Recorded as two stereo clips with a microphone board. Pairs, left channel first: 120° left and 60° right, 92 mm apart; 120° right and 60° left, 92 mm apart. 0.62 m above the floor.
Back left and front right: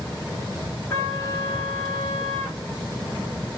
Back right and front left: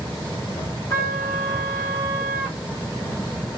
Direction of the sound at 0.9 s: Straight behind.